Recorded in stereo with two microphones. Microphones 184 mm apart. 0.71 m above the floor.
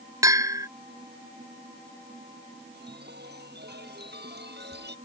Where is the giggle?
I don't hear a giggle.